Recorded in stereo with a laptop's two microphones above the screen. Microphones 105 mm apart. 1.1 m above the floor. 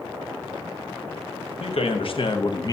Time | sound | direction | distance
1.6 | a man speaking | 65° left (ahead or behind) | 1.1 m